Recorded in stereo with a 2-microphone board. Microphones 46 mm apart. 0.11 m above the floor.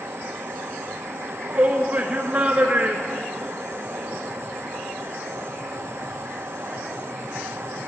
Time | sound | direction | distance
0.0 | running water | 80° right | 1.8 m
1.3 | a shout | 35° right (ahead or behind) | 1.3 m